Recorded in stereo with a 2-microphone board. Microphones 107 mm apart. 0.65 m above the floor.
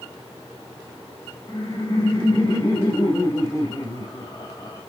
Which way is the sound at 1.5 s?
35° left (ahead or behind).